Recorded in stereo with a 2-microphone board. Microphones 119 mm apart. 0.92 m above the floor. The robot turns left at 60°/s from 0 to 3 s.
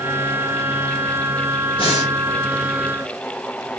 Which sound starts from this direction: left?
Breathing, at 1.8 s.